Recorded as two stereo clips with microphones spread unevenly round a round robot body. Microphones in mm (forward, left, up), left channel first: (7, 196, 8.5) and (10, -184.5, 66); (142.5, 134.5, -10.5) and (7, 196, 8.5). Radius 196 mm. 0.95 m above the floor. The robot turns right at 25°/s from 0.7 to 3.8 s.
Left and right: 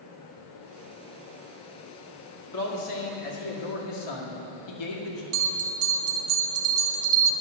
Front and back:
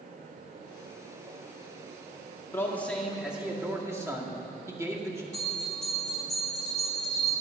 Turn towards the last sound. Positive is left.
turn(degrees=-125)